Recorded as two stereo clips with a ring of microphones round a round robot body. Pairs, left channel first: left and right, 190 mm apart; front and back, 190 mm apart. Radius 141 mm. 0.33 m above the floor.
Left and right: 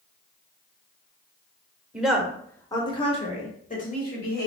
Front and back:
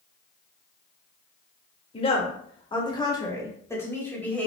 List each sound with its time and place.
1.9 s a woman speaking: 10° right, 1.2 m; by 4.5 s 80° left, 1.9 m